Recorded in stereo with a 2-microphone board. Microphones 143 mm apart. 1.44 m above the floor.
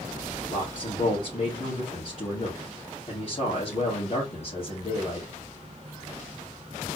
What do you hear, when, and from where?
0.5 s a man speaking: 50° left (ahead or behind), 2.5 m